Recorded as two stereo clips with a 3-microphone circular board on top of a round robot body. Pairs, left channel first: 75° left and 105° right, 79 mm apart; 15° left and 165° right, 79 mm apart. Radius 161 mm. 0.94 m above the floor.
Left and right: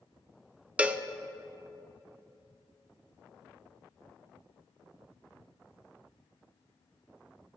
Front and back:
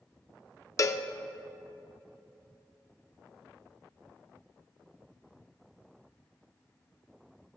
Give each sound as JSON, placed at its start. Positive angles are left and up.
{"t": 0.8, "sound": "a cowbell", "azimuth_deg": -30, "distance_m": 0.5}